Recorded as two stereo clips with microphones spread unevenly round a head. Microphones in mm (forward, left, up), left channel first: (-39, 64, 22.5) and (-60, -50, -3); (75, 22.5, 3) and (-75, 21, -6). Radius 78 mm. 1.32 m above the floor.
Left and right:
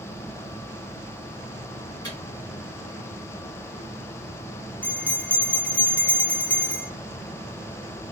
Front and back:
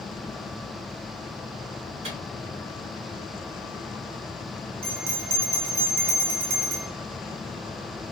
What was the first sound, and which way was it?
A microwave, 130° left.